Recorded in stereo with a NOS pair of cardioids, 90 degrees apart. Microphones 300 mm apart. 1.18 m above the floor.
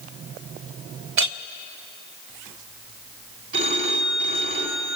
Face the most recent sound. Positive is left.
turn(degrees=-40)